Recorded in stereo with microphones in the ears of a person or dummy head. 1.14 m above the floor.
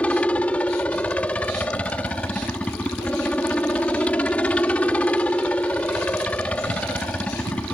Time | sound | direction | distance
0.0 | a helicopter | 10° left (ahead or behind) | ?